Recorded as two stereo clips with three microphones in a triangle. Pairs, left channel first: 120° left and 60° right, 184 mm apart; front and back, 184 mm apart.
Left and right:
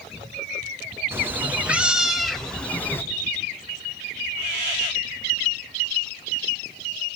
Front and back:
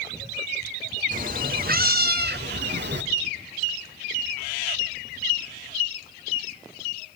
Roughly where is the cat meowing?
Behind right.